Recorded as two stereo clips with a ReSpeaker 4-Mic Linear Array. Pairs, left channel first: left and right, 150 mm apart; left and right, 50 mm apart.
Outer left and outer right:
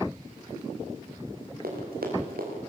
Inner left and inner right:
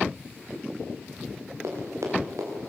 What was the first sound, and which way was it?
Running footsteps, 80° right.